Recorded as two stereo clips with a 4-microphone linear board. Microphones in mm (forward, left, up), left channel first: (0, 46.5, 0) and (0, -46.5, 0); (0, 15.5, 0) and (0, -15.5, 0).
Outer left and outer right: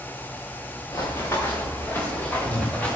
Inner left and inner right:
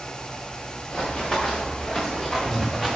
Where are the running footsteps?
35° left (ahead or behind), 4.5 m; by 3.0 s 15° left (ahead or behind), 6 m.